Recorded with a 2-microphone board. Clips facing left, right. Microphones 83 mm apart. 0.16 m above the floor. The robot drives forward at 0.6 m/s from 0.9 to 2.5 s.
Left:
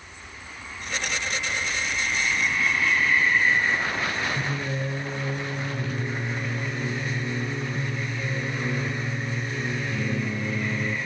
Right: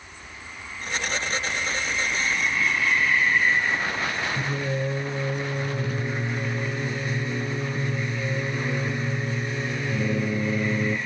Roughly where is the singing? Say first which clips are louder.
Right 2 dB; centre.